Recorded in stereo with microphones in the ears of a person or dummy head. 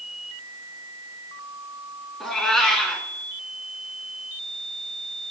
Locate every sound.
2.2 s a cat meowing: 5° left (ahead or behind), 1.7 m